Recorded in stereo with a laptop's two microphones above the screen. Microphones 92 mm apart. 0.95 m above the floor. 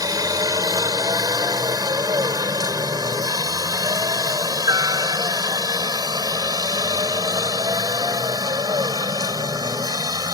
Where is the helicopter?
45° right (ahead or behind); by 10.3 s 50° right (ahead or behind).